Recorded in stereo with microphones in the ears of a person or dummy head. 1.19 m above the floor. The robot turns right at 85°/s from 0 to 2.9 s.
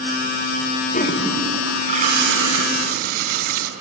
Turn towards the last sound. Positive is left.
turn(degrees=-50)